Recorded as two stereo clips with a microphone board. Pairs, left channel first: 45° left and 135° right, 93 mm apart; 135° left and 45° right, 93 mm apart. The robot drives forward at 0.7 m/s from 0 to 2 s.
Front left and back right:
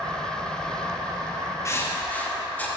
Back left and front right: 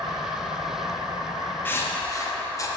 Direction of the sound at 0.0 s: 60° right.